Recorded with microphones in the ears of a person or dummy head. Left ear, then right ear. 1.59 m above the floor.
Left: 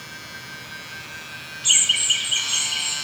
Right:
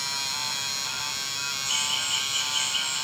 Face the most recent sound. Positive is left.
turn(degrees=75)  # may be behind; listen again after turning